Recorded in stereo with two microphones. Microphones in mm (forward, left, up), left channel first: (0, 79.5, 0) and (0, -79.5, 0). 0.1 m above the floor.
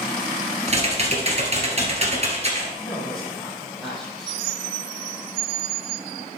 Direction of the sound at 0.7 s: 45° right (ahead or behind).